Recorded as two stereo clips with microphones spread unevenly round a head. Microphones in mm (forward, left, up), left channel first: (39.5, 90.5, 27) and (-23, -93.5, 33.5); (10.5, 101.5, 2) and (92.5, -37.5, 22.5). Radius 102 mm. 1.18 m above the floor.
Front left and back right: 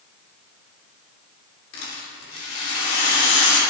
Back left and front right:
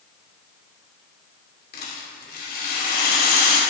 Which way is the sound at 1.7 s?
100° left.